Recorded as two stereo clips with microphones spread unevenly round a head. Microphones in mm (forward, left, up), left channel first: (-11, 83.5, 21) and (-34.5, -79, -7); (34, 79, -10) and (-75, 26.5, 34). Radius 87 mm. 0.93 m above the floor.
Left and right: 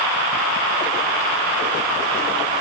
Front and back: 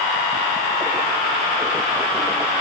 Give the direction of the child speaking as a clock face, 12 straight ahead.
No child speaking in this recording.